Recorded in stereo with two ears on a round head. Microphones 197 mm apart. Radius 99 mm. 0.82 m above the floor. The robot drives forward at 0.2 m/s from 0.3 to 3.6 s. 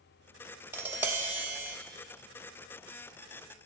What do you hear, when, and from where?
0.7 s tapping: 10° right (ahead or behind), 0.6 m